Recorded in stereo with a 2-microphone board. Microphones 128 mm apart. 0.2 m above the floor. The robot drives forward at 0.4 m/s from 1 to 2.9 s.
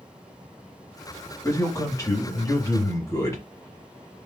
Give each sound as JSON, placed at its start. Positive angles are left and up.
{"t": 1.4, "sound": "a man speaking", "side_deg": 25, "distance_m": 1.2}